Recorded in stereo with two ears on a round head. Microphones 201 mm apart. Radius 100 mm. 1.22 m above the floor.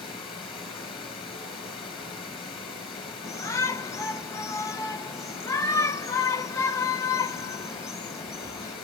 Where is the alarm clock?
I don't hear an alarm clock.